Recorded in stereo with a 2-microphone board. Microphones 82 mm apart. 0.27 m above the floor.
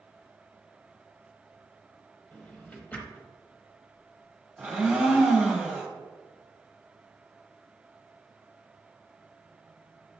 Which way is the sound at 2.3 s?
15° left (ahead or behind).